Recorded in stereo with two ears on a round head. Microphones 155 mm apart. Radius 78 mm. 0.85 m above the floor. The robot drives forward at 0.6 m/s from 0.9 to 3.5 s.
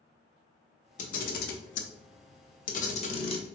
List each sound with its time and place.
1.0 s a camera shutter: 45° left (ahead or behind), 0.8 m; by 3.5 s 35° left (ahead or behind), 1.1 m